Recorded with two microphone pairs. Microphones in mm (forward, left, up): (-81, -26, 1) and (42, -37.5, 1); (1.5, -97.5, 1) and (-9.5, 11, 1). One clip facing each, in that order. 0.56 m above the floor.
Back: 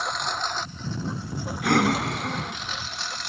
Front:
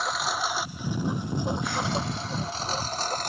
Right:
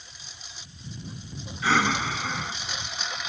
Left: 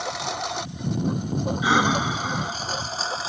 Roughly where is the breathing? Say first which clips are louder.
Back 7 dB, left 2 dB; behind.